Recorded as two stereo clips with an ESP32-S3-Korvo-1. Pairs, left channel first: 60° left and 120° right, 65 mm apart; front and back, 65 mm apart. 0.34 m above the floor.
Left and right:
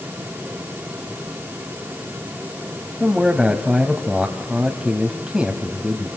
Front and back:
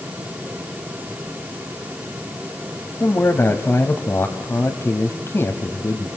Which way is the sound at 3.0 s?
40° right.